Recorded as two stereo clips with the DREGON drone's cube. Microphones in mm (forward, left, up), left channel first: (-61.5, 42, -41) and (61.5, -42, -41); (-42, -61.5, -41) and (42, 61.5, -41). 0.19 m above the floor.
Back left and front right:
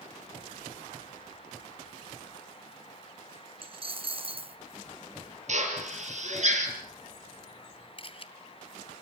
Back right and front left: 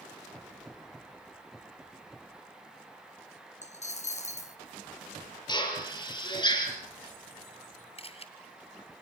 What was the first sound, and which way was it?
A dropped coin, 85° right.